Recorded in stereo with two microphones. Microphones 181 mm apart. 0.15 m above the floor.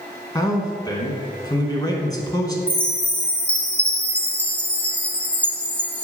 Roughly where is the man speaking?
Left.